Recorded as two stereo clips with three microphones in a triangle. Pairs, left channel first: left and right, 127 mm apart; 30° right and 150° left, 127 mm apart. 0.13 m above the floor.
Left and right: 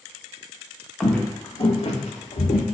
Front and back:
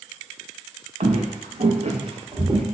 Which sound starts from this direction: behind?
Footsteps, at 1.0 s.